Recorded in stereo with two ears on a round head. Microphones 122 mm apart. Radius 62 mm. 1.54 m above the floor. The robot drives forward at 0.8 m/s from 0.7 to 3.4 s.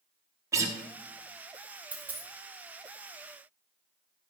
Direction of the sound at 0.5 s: 20° right (ahead or behind).